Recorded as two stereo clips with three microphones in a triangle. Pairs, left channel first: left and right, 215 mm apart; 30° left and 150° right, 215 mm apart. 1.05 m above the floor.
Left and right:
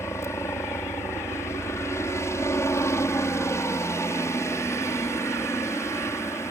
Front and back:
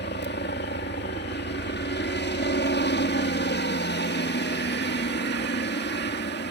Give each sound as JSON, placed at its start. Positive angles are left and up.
{"t": 0.0, "sound": "a helicopter", "azimuth_deg": 15}